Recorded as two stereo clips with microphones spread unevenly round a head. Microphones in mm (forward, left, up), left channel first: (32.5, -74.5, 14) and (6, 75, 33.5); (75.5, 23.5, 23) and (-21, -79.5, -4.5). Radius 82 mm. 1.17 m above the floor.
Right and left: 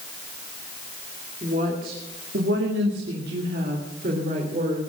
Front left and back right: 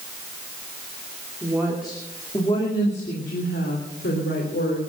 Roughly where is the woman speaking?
Behind left.